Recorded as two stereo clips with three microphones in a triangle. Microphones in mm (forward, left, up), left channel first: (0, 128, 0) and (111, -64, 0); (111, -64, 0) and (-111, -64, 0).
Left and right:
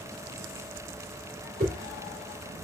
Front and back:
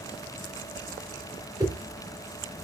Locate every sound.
1.6 s a whoosh: 105° right, 3 m